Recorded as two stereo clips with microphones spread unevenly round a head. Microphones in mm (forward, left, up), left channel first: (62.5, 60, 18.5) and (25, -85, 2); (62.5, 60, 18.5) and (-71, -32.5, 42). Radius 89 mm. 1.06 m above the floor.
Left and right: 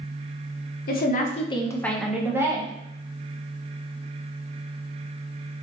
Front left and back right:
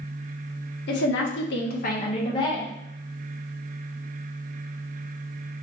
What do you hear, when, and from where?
0.9 s a woman speaking: 55° left, 0.7 m; by 2.7 s 40° right, 1.0 m